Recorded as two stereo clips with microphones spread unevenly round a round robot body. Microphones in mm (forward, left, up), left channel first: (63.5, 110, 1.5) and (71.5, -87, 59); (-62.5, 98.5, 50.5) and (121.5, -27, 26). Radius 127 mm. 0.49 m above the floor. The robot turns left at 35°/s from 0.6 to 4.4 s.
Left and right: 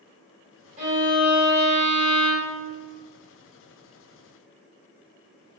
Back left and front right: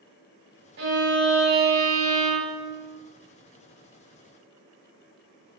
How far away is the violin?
About 1.8 m.